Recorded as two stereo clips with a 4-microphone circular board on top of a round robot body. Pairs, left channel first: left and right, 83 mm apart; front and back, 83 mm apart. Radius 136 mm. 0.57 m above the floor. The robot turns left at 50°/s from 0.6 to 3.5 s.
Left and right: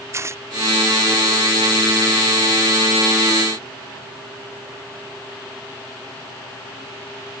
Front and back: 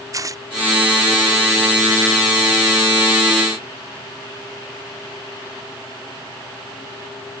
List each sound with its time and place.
0.1 s tearing paper: 140° right